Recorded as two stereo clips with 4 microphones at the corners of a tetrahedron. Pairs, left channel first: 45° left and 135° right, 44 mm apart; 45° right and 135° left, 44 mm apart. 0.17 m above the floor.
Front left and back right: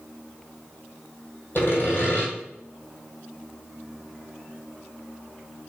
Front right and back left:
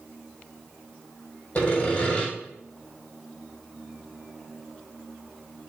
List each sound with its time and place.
1.6 s sawing: 5° left, 2 m